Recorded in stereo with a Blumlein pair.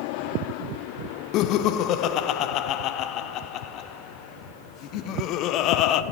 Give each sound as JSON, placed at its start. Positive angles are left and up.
{"t": 1.3, "sound": "laughter", "azimuth_deg": 35, "distance_m": 0.5}